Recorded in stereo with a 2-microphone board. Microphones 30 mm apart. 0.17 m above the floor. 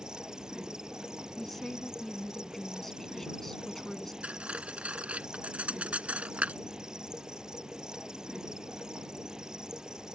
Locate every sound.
0.0 s an insect: 25° right (ahead or behind)
1.4 s a woman speaking: 10° left (ahead or behind)
4.2 s cutlery clinking: 50° right (ahead or behind)